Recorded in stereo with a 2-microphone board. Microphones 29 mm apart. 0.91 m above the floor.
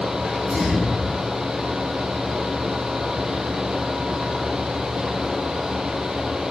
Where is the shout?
I don't hear a shout.